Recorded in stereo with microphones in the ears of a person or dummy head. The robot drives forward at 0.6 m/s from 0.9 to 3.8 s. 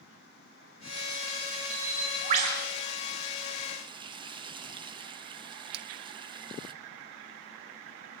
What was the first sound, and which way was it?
A bird, 55° right (ahead or behind).